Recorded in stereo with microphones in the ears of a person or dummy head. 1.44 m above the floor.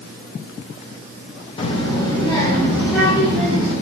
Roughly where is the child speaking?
Left.